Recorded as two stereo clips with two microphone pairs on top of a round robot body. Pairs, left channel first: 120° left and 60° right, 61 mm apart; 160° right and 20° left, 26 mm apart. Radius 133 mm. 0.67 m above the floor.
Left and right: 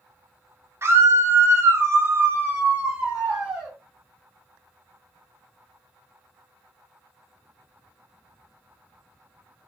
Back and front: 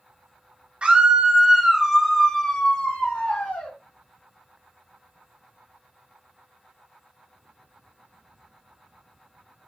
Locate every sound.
0.8 s a scream: 20° right, 1.0 m; by 3.7 s 140° right, 1.2 m